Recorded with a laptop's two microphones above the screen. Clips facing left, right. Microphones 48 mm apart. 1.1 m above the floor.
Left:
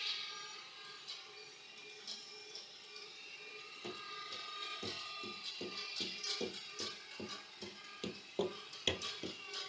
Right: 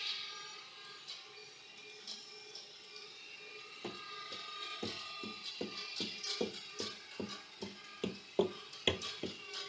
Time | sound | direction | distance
3.8 | running footsteps | 35° right (ahead or behind) | 3.5 m